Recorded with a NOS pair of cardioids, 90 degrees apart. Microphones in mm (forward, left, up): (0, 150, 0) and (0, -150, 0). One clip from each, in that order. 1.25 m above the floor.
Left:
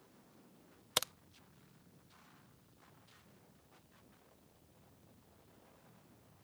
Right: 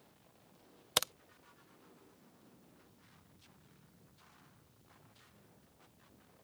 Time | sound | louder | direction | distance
1.0 | a crack | right 3 dB | 10° right | ?